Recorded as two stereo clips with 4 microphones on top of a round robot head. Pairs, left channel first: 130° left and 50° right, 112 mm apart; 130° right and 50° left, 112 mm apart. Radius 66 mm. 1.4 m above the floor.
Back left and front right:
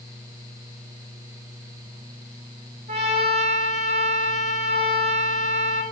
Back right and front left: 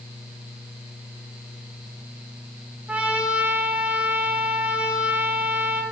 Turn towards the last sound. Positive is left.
turn(degrees=-25)